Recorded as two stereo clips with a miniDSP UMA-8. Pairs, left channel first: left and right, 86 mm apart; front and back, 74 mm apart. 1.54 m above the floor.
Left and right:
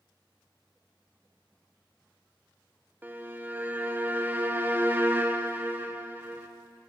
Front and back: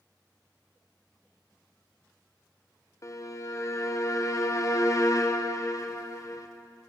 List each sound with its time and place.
3.0 s a violin: 30° right, 0.6 m